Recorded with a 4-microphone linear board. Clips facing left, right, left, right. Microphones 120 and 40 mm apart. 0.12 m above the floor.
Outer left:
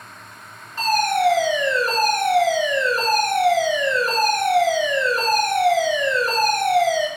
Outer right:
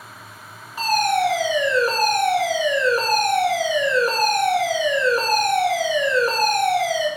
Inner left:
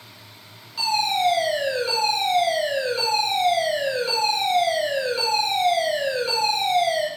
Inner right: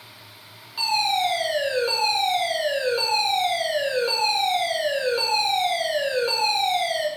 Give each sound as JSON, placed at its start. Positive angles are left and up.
{"t": 0.8, "sound": "a fire alarm", "side_deg": -10, "distance_m": 2.5}